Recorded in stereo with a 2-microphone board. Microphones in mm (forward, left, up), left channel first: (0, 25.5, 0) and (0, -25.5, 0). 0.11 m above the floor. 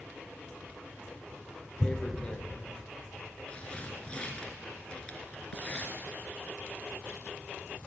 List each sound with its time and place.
1.8 s tearing paper: 20° left (ahead or behind), 1.8 m